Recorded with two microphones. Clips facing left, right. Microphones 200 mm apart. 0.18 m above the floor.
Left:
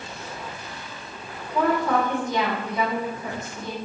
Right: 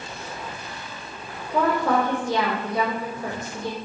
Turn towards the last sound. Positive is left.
turn(degrees=-75)  # may be behind; listen again after turning